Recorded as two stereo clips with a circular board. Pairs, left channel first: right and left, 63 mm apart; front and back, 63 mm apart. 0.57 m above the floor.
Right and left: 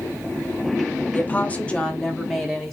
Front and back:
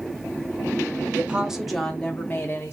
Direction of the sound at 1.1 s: 125° right.